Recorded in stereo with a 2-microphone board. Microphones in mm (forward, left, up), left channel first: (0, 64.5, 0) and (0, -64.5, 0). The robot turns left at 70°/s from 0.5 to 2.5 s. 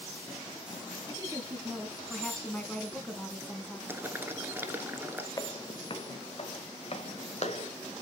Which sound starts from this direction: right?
A woman speaking, at 1.1 s.